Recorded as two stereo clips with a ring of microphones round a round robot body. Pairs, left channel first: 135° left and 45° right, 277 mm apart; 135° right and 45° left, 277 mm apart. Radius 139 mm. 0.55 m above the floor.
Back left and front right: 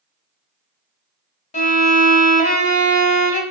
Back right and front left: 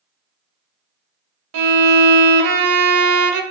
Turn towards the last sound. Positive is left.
turn(degrees=70)